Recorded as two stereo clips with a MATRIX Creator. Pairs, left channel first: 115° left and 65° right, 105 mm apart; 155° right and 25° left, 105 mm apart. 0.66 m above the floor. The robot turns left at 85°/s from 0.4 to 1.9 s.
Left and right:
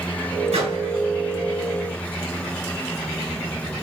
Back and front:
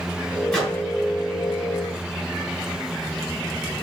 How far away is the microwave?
About 2.0 m.